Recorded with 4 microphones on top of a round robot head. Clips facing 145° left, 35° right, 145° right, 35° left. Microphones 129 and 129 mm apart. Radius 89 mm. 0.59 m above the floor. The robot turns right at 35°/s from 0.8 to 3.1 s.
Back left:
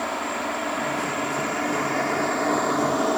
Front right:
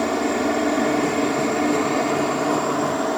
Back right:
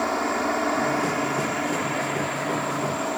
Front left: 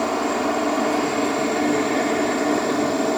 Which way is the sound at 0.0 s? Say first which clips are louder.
Front right 7 dB, front left 3 dB; 25° right.